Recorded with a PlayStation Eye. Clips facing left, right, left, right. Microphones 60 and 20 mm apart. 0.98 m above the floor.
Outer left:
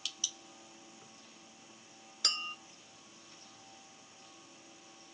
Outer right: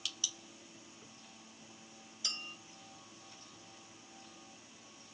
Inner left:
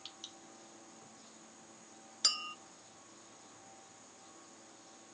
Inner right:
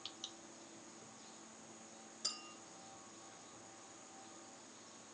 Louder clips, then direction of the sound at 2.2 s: Outer left 7 dB, inner left 12 dB; 70° left (ahead or behind).